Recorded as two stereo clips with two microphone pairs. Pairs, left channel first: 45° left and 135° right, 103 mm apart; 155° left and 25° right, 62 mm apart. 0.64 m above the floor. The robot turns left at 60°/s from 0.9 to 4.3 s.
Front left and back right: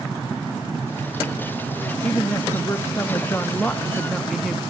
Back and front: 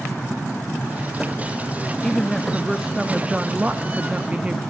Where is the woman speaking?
85° left, 0.8 m; by 4.6 s 50° right, 0.8 m.